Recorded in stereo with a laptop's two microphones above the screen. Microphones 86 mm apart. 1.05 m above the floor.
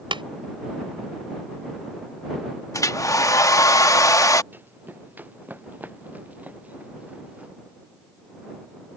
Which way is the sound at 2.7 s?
40° left (ahead or behind).